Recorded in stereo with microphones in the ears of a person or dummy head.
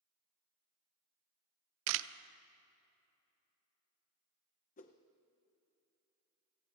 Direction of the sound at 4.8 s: 45° left (ahead or behind).